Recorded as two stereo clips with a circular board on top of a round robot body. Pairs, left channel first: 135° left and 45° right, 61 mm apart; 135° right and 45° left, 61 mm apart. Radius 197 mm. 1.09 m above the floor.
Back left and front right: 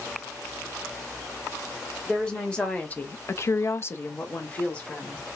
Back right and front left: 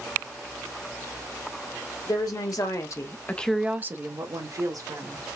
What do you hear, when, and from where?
2.0 s a woman speaking: 140° right, 1.5 m; by 5.2 s 65° left, 1.8 m